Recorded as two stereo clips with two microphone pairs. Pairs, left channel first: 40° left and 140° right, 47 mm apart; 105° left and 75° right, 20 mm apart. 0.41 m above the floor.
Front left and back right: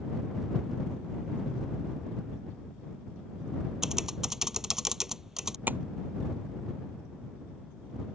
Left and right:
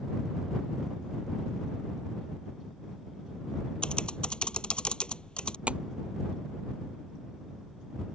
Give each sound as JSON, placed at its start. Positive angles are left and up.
{"t": 3.8, "sound": "typing on a keyboard", "azimuth_deg": 140}
{"t": 5.7, "sound": "tapping", "azimuth_deg": -90}